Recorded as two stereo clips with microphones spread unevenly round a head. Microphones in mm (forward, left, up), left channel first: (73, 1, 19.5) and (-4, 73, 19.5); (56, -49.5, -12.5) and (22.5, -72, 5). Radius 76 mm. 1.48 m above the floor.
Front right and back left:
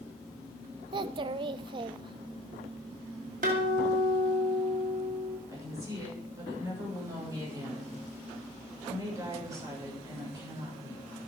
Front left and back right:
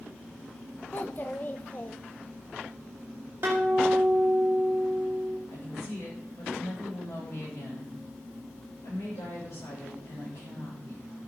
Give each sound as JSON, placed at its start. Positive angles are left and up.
{"t": 0.9, "sound": "a child speaking", "azimuth_deg": 110, "distance_m": 0.6}
{"t": 3.4, "sound": "a guitar", "azimuth_deg": 170, "distance_m": 2.5}
{"t": 5.5, "sound": "a woman speaking", "azimuth_deg": 75, "distance_m": 7.0}